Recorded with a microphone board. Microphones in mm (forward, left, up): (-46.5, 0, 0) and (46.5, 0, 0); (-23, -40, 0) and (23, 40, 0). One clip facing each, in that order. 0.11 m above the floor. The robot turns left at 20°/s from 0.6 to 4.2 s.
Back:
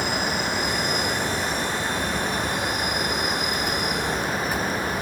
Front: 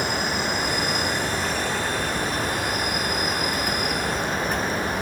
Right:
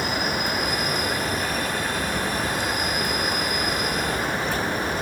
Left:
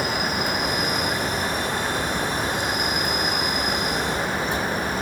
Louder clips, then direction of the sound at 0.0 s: Even, left 1 dB; 45° left.